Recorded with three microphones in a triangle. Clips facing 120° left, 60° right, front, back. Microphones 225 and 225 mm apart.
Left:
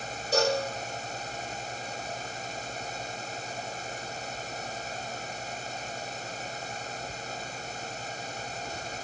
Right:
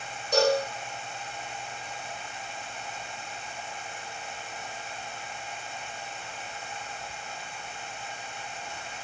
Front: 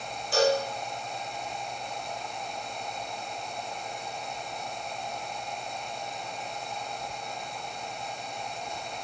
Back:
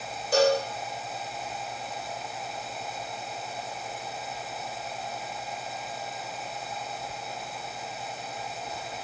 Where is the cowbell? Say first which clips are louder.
Right 3 dB, back 2 dB; 160° right, 1.0 m.